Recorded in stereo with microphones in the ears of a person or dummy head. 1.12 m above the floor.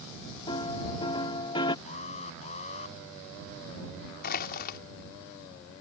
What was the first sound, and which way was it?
A piano, 35° left (ahead or behind).